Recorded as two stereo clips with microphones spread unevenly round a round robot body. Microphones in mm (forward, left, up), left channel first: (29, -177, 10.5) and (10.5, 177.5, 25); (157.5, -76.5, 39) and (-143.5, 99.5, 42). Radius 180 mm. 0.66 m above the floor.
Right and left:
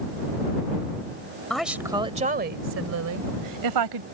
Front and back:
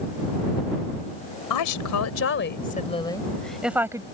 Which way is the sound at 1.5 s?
Straight ahead.